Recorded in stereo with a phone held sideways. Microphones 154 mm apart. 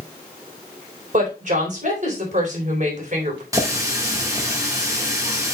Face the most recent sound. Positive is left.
turn(degrees=-20)  # may be behind; listen again after turning